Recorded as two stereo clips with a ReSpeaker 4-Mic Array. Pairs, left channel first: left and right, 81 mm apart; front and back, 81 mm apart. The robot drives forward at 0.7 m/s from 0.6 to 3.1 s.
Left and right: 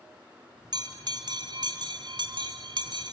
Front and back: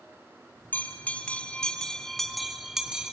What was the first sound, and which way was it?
A bell, 65° right.